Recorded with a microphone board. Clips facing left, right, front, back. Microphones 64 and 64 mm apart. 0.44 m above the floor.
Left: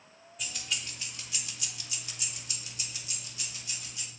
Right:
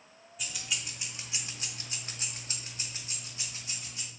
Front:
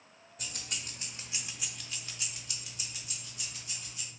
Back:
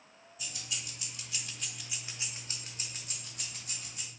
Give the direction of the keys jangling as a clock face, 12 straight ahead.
12 o'clock.